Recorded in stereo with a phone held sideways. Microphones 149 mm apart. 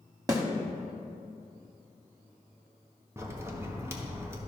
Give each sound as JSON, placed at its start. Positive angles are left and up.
{"t": 0.3, "sound": "a snare drum", "side_deg": -25, "distance_m": 1.3}
{"t": 3.2, "sound": "a crack", "side_deg": -15, "distance_m": 1.2}